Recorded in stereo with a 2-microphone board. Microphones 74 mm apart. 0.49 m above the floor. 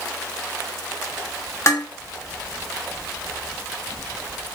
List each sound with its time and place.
1.7 s dishes clattering: 40° left (ahead or behind), 0.8 m